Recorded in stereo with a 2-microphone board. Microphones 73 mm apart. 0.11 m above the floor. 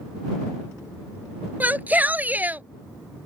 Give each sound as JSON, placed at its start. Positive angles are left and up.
{"t": 1.6, "sound": "a shout", "side_deg": -20}